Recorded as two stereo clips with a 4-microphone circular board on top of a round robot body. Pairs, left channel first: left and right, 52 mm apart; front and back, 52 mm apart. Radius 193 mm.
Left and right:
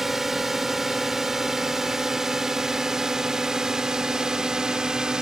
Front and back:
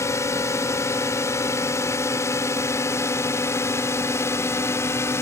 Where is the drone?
5° right; by 5.2 s 15° right.